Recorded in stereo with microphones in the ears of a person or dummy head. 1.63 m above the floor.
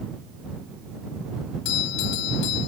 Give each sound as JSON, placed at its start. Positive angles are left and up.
{"t": 1.6, "sound": "a doorbell", "side_deg": 70}